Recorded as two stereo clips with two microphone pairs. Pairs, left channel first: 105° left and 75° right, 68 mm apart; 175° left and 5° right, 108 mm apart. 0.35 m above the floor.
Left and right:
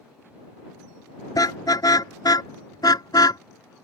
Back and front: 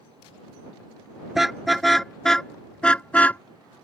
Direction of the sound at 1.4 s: 80° left.